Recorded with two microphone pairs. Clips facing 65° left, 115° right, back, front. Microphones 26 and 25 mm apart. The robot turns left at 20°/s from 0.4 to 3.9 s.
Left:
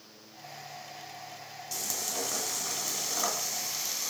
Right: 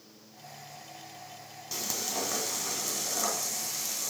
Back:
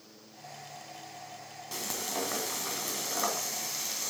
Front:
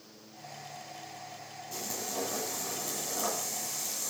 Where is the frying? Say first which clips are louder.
Right 1 dB, back 2 dB; 175° left, 2 m; by 4.1 s 130° left, 2 m.